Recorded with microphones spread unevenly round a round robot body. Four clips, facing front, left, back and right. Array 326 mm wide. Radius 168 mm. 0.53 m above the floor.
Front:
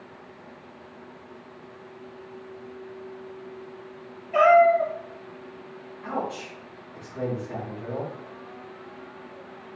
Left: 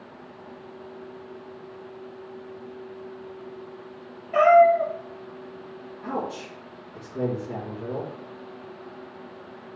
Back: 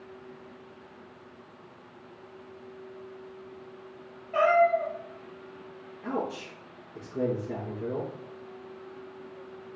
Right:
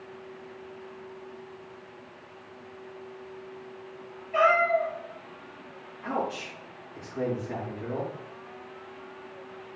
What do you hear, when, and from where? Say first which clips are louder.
4.3 s a cat meowing: left 7 dB, front 6 dB; 65° left, 2.5 m
6.0 s a man speaking: even, front 2 dB; 140° left, 4 m